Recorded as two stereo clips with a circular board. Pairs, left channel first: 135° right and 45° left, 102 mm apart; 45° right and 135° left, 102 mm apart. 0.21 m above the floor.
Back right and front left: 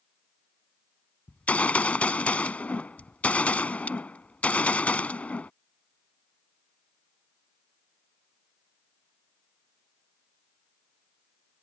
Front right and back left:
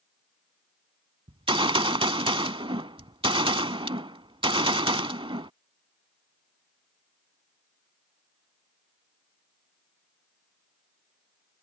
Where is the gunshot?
150° left.